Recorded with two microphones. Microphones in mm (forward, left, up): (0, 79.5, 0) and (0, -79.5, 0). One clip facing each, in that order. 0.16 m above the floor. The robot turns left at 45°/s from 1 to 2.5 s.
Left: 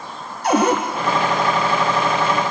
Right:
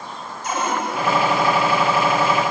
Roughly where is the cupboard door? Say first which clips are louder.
Left 7 dB; left.